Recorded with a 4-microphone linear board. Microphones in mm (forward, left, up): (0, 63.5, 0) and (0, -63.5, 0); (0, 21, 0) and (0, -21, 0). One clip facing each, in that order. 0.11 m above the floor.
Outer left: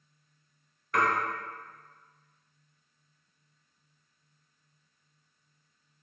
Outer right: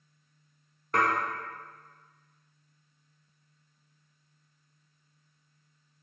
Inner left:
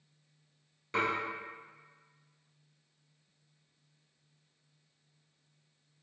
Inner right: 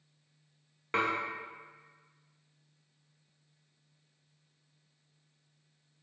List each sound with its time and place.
0.9 s dishes clattering: 40° right (ahead or behind), 0.9 m